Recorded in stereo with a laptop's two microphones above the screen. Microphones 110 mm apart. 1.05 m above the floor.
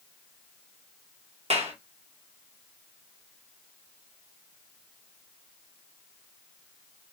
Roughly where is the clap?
Right.